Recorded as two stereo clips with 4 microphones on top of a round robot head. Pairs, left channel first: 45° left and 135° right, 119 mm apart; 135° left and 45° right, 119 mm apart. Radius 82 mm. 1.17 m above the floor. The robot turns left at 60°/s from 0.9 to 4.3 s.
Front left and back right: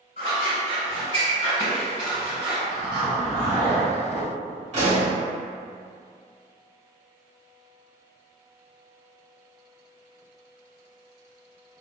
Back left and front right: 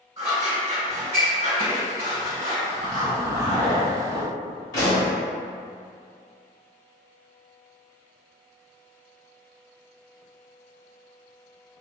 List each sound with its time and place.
0.2 s scissors: 15° left, 1.7 m; by 2.6 s 85° right, 1.7 m
2.7 s a zipper: 125° right, 1.3 m; by 4.3 s 140° left, 1.3 m
4.7 s a pop: 165° right, 1.3 m